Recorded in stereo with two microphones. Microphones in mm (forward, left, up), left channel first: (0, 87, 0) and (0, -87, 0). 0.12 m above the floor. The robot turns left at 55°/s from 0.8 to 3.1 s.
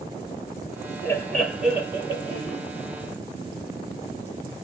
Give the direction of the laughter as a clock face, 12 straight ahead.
11 o'clock.